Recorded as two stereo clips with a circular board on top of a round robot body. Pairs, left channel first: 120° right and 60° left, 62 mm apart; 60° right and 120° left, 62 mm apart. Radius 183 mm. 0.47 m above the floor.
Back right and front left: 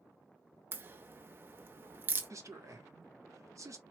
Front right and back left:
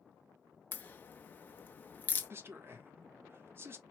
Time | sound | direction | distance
0.7 | a crack | 5° left | 0.8 m
2.3 | a man speaking | 75° left | 1.8 m